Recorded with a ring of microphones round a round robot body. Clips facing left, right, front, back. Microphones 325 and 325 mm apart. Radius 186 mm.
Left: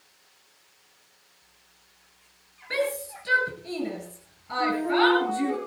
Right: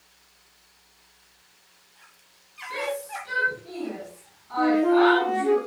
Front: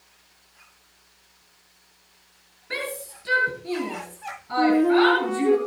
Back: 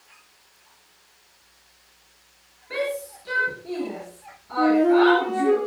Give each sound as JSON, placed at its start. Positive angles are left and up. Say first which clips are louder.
{"t": 2.7, "sound": "a shout", "louder": "left 3 dB, back 6 dB", "azimuth_deg": 60, "distance_m": 7.5}
{"t": 4.6, "sound": "a flute", "louder": "right 6 dB, back 1 dB", "azimuth_deg": -75, "distance_m": 6.0}